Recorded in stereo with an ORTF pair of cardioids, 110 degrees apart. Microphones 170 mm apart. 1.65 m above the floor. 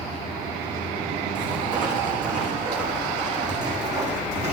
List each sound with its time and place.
1.4 s footsteps: 50° right, 7 m; by 4.5 s 40° right, 5.5 m